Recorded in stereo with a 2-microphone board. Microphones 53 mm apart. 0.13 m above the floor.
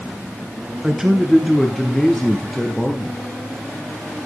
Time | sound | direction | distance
0.8 | a man speaking | 10° right (ahead or behind) | 1.2 m